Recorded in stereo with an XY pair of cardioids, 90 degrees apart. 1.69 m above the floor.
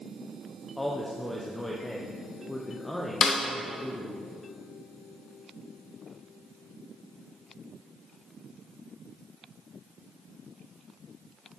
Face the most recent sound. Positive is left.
turn(degrees=50)